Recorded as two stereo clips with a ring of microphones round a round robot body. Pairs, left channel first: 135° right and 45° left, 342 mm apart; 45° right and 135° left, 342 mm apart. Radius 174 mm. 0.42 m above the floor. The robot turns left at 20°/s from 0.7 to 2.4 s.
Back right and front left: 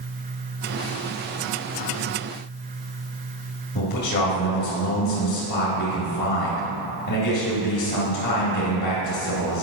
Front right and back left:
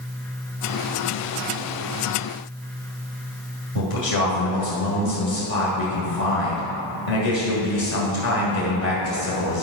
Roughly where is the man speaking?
Right.